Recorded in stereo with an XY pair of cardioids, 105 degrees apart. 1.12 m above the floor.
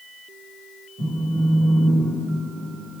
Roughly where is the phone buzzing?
Ahead right.